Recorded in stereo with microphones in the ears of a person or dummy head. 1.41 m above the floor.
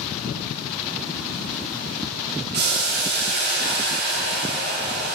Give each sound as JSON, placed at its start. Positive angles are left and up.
{"t": 2.5, "sound": "boiling", "side_deg": -55, "distance_m": 1.1}